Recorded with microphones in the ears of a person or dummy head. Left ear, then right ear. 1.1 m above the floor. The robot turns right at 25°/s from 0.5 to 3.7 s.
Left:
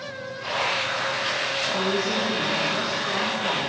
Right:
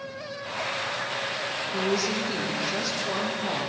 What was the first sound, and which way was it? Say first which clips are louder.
A woman speaking: left 2 dB; 100° right.